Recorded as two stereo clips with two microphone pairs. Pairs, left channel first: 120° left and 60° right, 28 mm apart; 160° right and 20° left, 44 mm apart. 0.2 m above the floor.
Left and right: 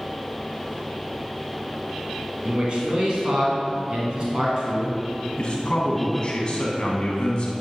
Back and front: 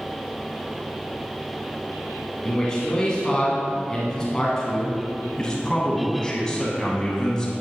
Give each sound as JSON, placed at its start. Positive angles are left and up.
{"t": 2.5, "sound": "a man speaking", "azimuth_deg": -95, "distance_m": 1.5}
{"t": 5.4, "sound": "a man speaking", "azimuth_deg": 135, "distance_m": 1.2}